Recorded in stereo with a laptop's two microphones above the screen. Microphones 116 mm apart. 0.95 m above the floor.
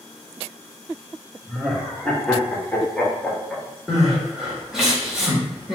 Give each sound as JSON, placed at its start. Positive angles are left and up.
{"t": 1.5, "sound": "laughter", "side_deg": 5, "distance_m": 1.2}
{"t": 3.9, "sound": "crying", "side_deg": -5, "distance_m": 1.9}